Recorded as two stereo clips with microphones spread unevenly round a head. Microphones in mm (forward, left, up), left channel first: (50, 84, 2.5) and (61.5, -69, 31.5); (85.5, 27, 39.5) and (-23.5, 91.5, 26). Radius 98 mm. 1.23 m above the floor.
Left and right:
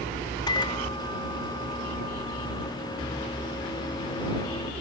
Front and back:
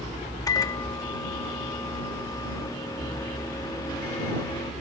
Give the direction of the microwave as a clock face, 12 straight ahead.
11 o'clock.